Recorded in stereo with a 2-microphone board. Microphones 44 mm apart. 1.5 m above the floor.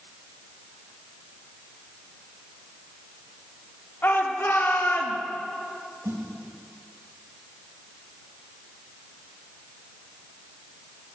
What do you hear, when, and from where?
4.0 s a shout: 50° left (ahead or behind), 3.5 m; by 5.2 s 65° left (ahead or behind), 2.5 m
6.0 s a snare drum: 65° right (ahead or behind), 5.5 m